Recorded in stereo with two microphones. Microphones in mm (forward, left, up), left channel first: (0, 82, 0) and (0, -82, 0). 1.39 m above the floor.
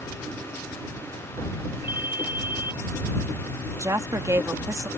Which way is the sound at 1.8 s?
15° right (ahead or behind).